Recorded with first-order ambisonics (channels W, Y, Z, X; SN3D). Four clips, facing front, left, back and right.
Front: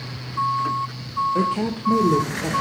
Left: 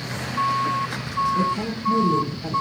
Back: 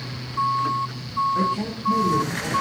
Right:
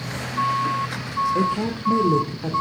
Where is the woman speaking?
40° right, 1.2 m.